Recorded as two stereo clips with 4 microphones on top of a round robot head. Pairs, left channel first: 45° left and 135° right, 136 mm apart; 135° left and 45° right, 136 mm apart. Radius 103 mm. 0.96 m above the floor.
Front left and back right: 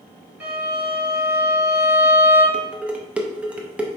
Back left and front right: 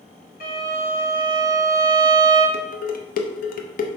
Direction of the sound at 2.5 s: 145° left.